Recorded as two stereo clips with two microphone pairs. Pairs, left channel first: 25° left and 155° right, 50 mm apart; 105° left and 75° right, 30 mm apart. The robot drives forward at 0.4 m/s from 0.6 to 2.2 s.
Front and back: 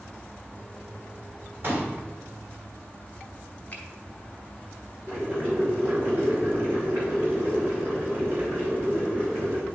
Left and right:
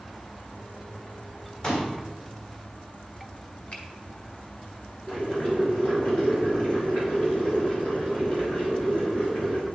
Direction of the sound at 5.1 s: 150° left.